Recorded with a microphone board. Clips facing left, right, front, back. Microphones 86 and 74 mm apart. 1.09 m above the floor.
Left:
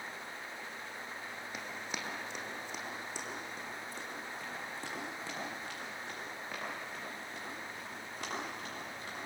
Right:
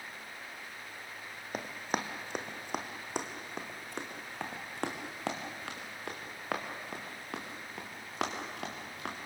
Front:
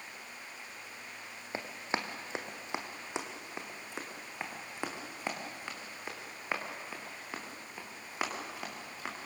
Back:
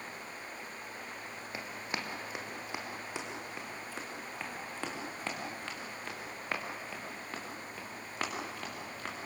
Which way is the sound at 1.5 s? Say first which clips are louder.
Right 9 dB, front 4 dB; 55° right.